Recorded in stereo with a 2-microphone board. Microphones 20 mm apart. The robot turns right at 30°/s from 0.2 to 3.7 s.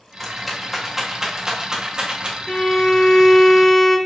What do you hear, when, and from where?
0.2 s a rattle: 5° left (ahead or behind), 0.9 m; by 2.4 s 55° right (ahead or behind), 0.9 m
2.5 s a violin: 120° left, 0.6 m; by 4.0 s 160° left, 0.6 m